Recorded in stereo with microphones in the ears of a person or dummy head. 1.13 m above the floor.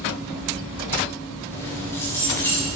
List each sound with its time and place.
1.5 s keys jangling: 15° left (ahead or behind), 7 m